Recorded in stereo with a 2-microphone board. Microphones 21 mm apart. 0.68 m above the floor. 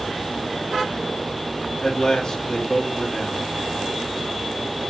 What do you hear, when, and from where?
1.8 s a man speaking: 35° left (ahead or behind), 1.1 m